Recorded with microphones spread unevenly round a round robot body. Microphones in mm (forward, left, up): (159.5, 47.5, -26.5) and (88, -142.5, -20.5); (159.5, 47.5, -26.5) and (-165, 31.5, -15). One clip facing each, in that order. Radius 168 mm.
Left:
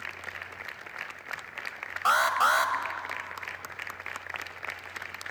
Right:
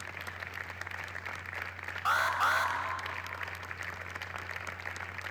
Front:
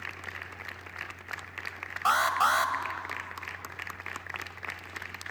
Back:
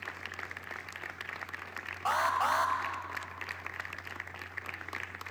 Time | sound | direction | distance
2.0 | an alarm | 50° left | 2 m